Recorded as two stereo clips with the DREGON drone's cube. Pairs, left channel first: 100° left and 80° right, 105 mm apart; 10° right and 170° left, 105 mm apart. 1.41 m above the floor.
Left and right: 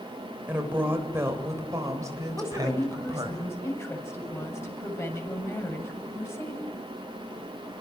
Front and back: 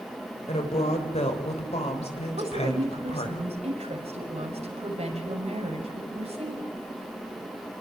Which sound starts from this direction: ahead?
A woman speaking, at 0.5 s.